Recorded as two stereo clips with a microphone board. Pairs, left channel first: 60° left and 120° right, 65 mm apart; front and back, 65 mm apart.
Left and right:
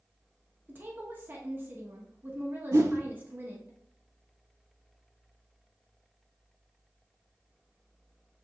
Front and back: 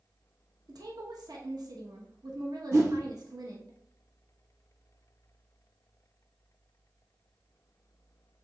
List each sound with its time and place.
0.7 s a woman speaking: straight behind, 0.8 m
2.7 s a whoosh: 145° right, 0.7 m